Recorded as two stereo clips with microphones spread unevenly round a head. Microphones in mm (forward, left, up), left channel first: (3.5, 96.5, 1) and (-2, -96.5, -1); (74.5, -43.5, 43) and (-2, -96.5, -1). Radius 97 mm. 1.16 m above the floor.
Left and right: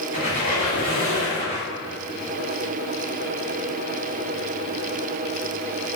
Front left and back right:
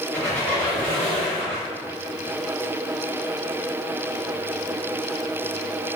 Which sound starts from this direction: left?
A squeak, at 0.1 s.